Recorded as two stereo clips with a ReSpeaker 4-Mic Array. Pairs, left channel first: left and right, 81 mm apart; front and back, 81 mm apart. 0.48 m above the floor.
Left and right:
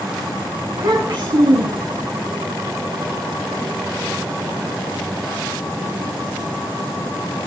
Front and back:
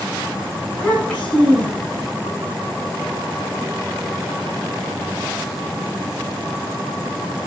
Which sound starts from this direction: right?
A child speaking, at 0.7 s.